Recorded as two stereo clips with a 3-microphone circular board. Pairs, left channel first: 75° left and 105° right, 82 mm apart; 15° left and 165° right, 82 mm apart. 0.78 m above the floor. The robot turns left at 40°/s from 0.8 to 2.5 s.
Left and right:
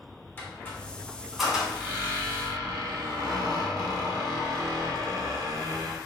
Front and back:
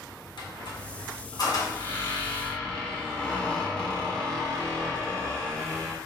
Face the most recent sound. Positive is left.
turn(degrees=-60)